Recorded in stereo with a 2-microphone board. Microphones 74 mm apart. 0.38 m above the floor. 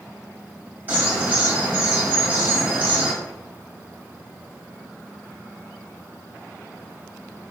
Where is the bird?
25° right (ahead or behind), 1.6 m.